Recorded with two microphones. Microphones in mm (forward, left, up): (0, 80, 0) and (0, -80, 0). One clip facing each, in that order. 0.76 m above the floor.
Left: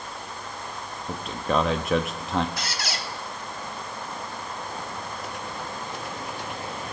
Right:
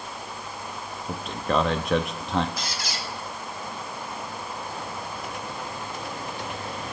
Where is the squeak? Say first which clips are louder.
Left 1 dB; 70° left (ahead or behind), 1.3 m.